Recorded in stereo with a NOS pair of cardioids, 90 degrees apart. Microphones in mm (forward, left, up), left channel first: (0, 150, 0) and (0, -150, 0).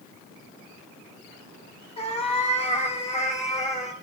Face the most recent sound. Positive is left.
turn(degrees=25)